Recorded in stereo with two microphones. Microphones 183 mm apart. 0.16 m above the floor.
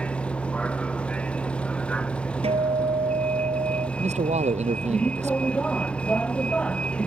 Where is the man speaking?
40° right (ahead or behind).